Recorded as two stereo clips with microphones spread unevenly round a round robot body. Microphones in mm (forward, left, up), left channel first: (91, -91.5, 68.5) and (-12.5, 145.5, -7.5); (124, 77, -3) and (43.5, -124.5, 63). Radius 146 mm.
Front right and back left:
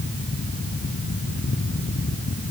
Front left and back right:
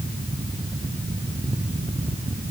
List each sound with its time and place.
Only background noise.